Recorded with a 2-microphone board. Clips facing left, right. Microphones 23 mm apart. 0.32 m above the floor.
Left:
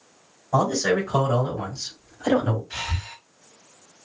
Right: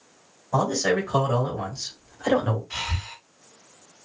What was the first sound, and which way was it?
A man speaking, centre (ahead or behind).